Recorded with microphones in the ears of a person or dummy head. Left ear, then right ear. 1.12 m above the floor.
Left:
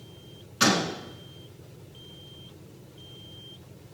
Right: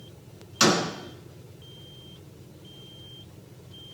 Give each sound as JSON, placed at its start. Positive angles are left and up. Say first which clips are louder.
{"t": 0.6, "sound": "a door slam", "louder": "right 1 dB", "side_deg": -25, "distance_m": 5.5}